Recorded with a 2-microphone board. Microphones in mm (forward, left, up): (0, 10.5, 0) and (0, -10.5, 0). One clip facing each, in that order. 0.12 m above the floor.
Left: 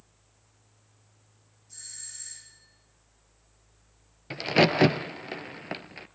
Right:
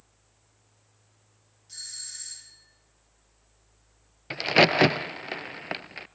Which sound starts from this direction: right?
A doorbell, at 1.7 s.